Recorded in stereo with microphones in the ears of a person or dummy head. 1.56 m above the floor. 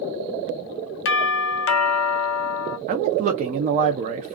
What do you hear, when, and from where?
1.1 s a doorbell: 60° left (ahead or behind), 0.6 m
2.9 s a man speaking: 45° right (ahead or behind), 0.6 m